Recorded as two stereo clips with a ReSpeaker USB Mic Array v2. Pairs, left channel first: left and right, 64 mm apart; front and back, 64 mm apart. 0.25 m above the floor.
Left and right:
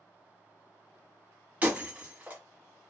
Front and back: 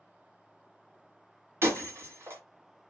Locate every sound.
1.6 s breaking glass: 150° right, 1.2 m